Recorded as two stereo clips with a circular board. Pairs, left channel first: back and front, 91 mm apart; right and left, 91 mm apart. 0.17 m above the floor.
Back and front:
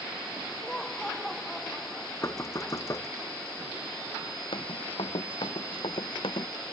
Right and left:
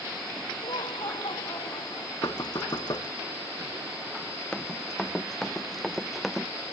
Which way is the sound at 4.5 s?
170° right.